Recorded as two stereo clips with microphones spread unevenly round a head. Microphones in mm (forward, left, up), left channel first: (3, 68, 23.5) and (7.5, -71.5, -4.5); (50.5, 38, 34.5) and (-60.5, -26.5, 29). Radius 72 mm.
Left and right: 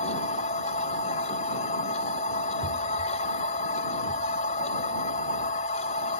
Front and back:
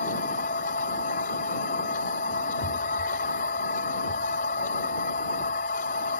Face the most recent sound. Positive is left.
turn(degrees=55)